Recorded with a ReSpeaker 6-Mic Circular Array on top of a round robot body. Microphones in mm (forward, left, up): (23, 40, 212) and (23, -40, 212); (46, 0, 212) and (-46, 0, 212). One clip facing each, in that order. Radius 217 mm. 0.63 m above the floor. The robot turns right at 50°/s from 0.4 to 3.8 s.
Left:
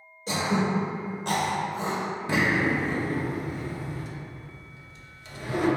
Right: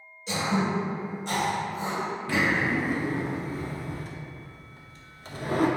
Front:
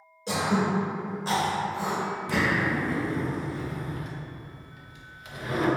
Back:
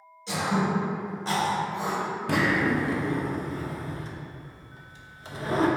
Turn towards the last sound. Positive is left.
turn(degrees=-125)